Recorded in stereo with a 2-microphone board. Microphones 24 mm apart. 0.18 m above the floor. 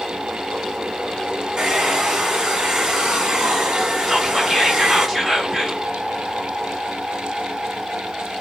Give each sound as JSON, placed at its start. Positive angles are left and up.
{"t": 1.6, "sound": "a hair dryer", "side_deg": -35, "distance_m": 0.9}
{"t": 4.1, "sound": "whispering", "side_deg": -15, "distance_m": 1.0}